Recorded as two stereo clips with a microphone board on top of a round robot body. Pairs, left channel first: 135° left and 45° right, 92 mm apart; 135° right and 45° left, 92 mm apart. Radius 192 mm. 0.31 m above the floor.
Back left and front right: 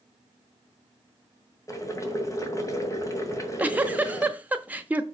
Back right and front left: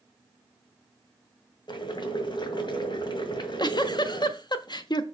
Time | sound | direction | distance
1.7 | boiling | 170° right | 2.0 m
3.3 | a giggle | 115° right | 1.1 m